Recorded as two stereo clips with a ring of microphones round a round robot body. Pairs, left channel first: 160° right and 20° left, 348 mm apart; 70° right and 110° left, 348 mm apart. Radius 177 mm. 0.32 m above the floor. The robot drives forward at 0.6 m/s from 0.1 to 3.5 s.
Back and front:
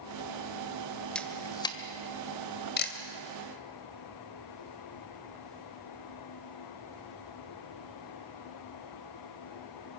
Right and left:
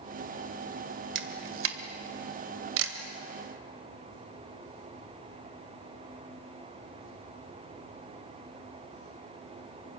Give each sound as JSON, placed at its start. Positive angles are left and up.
{"t": 1.1, "sound": "a camera shutter", "azimuth_deg": 115, "distance_m": 1.7}